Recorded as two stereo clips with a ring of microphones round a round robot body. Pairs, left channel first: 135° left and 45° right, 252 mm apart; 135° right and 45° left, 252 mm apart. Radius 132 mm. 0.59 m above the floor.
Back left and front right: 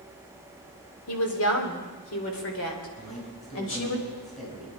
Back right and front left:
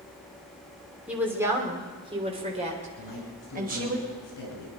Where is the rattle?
No rattle in this recording.